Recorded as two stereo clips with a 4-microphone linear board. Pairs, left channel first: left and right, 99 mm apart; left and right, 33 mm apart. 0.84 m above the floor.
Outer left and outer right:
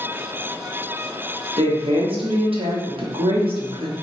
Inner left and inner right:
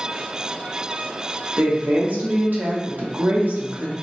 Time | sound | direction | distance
1.6 | a woman speaking | 60° right (ahead or behind) | 0.9 m